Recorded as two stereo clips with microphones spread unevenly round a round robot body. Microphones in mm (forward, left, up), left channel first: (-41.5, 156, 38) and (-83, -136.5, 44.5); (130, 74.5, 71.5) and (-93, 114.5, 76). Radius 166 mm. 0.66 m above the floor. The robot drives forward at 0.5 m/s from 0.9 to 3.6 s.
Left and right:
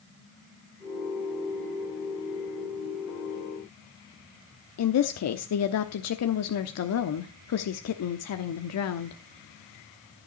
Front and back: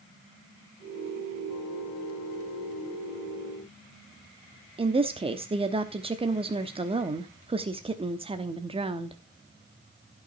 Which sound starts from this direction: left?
A woman speaking, at 4.8 s.